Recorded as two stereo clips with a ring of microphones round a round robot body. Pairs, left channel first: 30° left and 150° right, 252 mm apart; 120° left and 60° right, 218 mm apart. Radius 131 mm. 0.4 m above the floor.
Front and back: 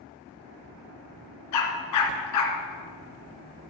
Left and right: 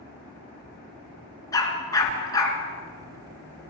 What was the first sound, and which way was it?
A dog barking, 45° left.